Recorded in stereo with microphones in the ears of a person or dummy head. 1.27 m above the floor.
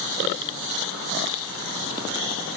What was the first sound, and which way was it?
Only background noise.